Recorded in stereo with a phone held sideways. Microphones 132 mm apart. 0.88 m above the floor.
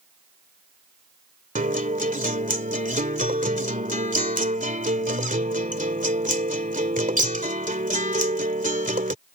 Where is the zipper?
No zipper in this recording.